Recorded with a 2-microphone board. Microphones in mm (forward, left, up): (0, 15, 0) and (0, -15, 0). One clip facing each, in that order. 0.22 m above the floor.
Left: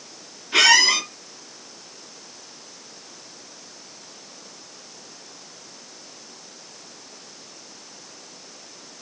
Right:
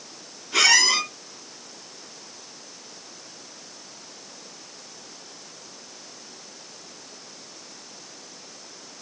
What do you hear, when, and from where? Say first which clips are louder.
0.5 s a squeak: left 3 dB; 30° left (ahead or behind), 2.5 m